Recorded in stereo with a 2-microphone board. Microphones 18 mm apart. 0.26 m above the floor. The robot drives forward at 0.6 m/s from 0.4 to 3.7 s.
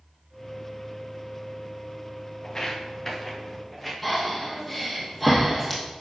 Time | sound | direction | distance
2.4 | footsteps | 35° left (ahead or behind) | 1.5 m
4.0 | breathing | 5° left (ahead or behind) | 3 m